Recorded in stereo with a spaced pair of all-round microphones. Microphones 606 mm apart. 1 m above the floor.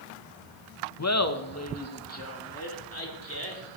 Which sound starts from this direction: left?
Laughter, at 1.0 s.